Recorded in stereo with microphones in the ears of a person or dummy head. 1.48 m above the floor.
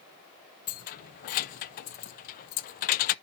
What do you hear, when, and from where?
0.7 s keys jangling: 45° left (ahead or behind), 0.6 m